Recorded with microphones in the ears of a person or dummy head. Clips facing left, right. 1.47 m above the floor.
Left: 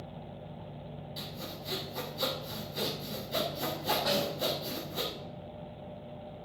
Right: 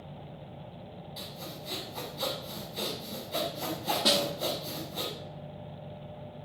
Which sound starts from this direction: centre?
Sawing, at 1.2 s.